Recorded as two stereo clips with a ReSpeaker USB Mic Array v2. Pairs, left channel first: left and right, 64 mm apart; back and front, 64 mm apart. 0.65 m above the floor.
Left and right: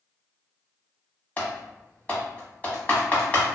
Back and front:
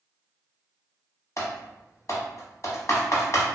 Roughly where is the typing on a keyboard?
Behind left.